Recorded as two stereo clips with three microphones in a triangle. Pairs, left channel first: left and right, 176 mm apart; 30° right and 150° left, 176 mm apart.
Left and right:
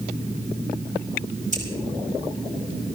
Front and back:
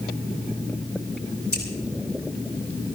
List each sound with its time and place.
1.5 s scissors: 45° right, 6 m